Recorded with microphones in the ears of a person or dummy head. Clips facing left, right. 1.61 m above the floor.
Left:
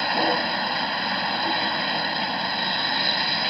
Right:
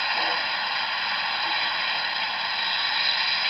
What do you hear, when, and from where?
0.0 s a vehicle: 50° left (ahead or behind)